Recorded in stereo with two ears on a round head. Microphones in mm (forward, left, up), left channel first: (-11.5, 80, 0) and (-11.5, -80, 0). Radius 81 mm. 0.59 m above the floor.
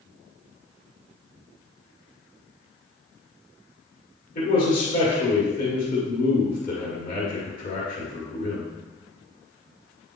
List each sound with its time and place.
4.3 s a man speaking: 50° left (ahead or behind), 1.7 m